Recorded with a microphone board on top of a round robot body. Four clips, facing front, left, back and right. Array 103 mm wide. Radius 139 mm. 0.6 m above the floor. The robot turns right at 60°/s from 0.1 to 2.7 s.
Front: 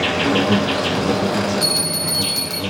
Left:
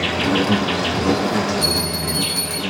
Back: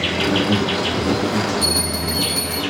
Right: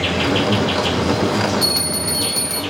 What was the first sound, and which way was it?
An insect, 20° left.